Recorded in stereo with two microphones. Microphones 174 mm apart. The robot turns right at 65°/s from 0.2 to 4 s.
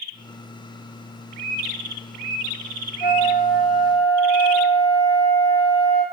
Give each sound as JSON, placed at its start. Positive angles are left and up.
{"t": 3.0, "sound": "a flute", "azimuth_deg": 75, "distance_m": 0.9}